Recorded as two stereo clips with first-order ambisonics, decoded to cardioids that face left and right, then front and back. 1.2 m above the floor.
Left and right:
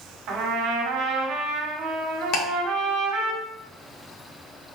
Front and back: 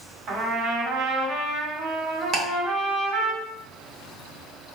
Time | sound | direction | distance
0.3 | a trumpet | 130° right | 1.9 m
2.3 | ticking | 125° left | 1.4 m